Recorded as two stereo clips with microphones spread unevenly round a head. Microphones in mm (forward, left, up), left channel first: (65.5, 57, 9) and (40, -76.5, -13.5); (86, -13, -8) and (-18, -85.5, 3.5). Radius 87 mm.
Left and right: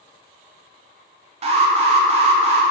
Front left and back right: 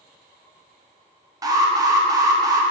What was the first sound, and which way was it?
An alarm, 85° right.